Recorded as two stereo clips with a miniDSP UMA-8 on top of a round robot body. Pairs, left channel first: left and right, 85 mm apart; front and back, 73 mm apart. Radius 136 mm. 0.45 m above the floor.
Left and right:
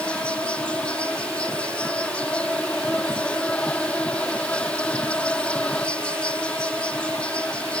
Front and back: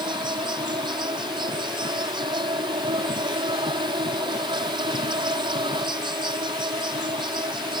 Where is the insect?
170° left.